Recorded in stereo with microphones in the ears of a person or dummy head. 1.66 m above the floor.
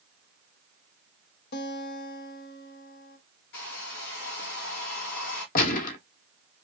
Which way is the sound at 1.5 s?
60° left (ahead or behind).